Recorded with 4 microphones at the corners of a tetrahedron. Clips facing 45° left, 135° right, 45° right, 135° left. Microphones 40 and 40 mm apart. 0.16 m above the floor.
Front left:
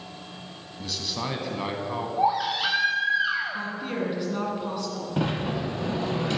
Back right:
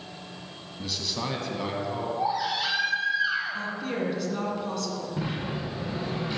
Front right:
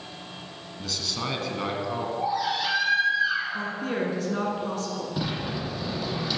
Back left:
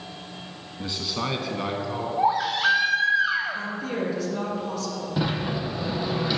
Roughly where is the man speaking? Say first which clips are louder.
Even, back left 3 dB; behind left.